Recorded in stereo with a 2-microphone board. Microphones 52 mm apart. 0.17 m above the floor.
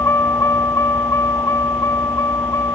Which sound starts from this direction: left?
A vehicle, at 0.0 s.